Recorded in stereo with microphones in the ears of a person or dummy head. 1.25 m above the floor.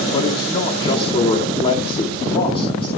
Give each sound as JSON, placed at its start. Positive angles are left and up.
{"t": 0.1, "sound": "a man speaking", "side_deg": 30, "distance_m": 2.5}